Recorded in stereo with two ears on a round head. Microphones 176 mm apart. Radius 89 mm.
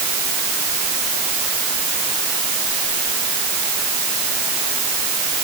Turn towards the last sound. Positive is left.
No sound to turn to.